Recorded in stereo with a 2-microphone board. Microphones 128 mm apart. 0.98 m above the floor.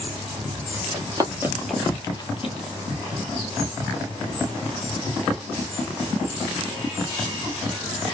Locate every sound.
0.9 s running footsteps: 35° right (ahead or behind), 1.9 m; by 2.5 s 50° left (ahead or behind), 1.4 m